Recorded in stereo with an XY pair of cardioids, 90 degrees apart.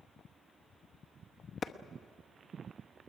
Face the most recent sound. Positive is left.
turn(degrees=50)